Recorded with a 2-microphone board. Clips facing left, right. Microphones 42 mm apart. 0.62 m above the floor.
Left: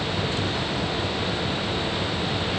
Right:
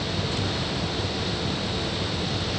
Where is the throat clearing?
No throat clearing in this recording.